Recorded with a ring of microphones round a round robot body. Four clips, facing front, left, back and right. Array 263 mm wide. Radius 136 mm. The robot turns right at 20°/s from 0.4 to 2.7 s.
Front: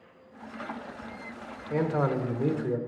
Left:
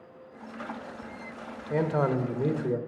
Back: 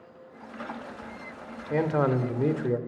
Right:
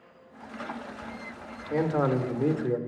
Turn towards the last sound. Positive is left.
turn(degrees=-175)